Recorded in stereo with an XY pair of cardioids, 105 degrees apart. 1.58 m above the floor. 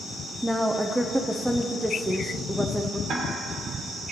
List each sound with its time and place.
0.4 s a woman speaking: 5° right, 0.6 m
3.1 s ticking: 65° right, 1.8 m